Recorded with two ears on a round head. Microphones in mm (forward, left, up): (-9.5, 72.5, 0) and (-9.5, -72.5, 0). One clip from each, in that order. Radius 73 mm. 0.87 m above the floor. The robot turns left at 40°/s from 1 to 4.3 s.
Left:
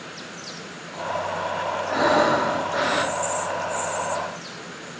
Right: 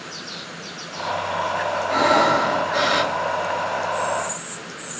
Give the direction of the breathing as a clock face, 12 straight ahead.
2 o'clock.